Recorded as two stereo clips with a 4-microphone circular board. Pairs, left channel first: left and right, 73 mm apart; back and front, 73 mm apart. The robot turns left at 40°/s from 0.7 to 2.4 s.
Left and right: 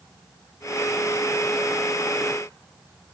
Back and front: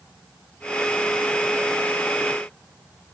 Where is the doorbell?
No doorbell in this recording.